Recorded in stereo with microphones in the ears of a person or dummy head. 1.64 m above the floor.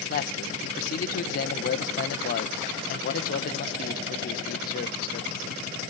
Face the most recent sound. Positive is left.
turn(degrees=45)  # may be behind; listen again after turning